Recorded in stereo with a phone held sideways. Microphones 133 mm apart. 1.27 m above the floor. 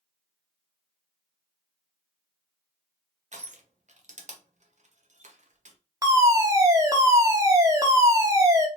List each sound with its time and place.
3.3 s crushing: 65° right (ahead or behind), 0.8 m
6.0 s a fire alarm: 25° right (ahead or behind), 1.0 m